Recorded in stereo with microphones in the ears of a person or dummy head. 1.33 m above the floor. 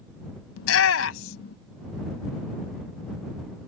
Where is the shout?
75° left (ahead or behind).